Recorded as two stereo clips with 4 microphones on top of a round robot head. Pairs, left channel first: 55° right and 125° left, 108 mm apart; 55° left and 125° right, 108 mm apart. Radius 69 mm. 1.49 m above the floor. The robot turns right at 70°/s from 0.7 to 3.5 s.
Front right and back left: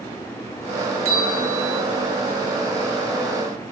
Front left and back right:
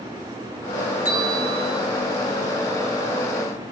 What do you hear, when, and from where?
1.1 s a bell: 165° right, 0.9 m; by 1.8 s 115° right, 0.9 m